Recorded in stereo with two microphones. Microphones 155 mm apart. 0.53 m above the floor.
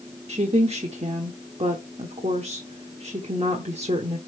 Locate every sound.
0.3 s a woman speaking: 40° right (ahead or behind), 1.0 m